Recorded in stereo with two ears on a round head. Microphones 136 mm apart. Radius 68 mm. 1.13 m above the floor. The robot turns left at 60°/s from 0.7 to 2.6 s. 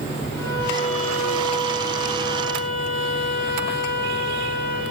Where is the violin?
160° left, 3.5 m; by 4.8 s 45° left, 3.5 m.